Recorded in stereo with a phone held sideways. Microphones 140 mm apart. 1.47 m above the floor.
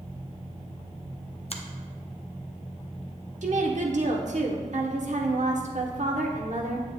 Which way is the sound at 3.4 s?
65° right (ahead or behind).